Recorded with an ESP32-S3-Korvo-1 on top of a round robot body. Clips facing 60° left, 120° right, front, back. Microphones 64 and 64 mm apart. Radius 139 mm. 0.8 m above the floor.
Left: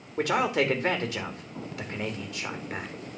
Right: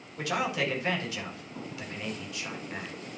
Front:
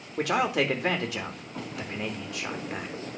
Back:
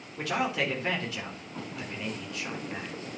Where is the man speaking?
15° left, 2.5 m.